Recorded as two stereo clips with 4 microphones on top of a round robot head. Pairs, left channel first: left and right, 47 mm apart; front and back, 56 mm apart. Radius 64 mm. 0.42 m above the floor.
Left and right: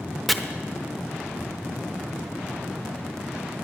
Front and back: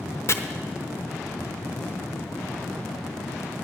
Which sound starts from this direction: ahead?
Chopping, at 0.3 s.